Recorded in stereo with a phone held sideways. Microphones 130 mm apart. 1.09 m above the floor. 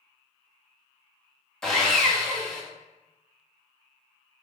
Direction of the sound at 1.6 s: 5° left (ahead or behind).